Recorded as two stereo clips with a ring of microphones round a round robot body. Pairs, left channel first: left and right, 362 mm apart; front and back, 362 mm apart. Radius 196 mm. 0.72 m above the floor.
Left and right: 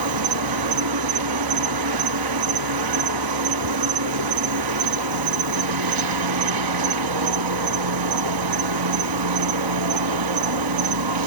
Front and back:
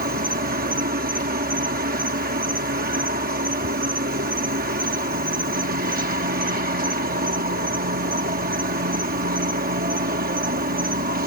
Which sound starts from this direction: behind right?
An insect, at 0.0 s.